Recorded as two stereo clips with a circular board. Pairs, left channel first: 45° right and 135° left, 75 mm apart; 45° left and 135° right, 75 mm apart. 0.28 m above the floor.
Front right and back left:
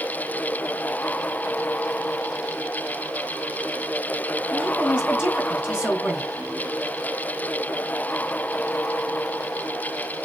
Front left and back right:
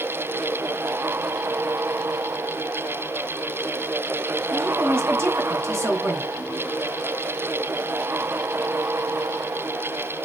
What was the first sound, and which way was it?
A woman speaking, 155° right.